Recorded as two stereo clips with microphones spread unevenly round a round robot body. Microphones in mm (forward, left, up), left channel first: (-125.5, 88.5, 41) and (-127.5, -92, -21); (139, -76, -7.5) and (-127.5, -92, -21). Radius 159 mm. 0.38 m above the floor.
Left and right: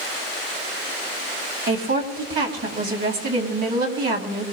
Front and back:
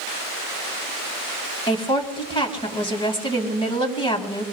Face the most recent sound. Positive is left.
turn(degrees=-70)